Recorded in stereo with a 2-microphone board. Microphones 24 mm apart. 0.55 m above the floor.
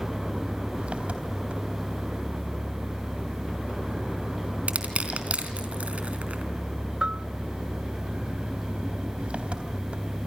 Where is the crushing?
60° right (ahead or behind), 3.5 m.